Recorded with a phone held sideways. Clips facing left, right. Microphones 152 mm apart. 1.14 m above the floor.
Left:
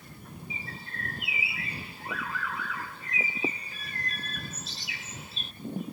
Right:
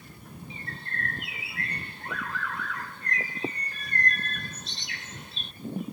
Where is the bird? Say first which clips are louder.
Right 4 dB; 5° left (ahead or behind).